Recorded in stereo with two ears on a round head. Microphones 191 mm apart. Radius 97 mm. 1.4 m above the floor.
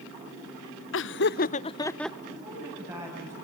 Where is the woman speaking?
15° right (ahead or behind), 9 m.